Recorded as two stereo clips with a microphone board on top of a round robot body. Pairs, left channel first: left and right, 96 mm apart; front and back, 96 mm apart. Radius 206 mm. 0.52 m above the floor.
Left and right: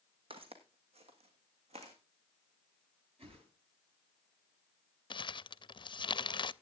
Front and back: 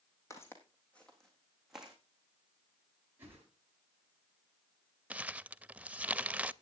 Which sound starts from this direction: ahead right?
Footsteps, at 0.3 s.